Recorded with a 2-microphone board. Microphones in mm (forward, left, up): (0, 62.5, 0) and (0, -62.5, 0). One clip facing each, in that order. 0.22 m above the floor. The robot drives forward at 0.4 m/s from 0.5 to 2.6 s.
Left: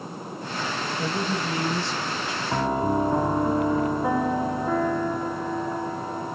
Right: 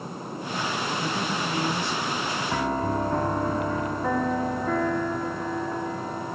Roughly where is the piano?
Centre.